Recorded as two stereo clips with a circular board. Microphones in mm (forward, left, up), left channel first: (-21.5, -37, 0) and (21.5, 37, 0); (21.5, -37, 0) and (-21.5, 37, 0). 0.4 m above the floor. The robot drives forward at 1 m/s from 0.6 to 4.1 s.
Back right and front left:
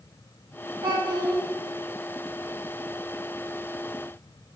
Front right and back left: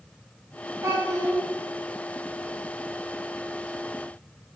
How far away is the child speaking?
About 3 m.